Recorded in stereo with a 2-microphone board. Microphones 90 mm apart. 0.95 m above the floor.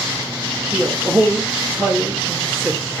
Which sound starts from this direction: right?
A man speaking, at 0.7 s.